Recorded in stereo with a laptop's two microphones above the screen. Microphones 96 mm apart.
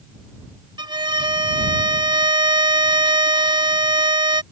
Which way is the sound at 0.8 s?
50° right (ahead or behind).